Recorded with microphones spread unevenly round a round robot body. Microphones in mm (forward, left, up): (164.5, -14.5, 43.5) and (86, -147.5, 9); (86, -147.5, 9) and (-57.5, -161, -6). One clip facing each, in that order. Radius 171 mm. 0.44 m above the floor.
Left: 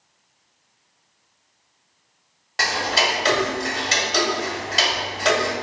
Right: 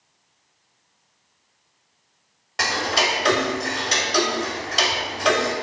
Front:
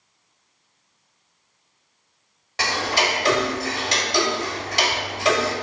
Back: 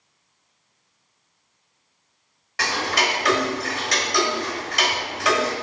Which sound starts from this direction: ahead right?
Ticking, at 2.6 s.